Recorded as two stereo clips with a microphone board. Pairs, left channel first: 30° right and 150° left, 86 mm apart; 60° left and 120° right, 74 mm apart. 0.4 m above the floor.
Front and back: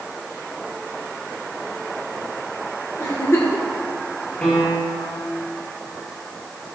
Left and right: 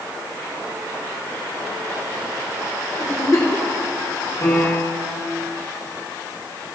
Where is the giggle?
25° left, 2.5 m.